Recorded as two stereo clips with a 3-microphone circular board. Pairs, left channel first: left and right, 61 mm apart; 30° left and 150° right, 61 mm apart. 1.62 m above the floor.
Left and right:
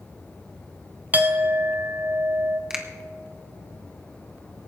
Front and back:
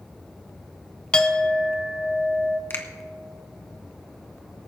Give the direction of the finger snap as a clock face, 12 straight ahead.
12 o'clock.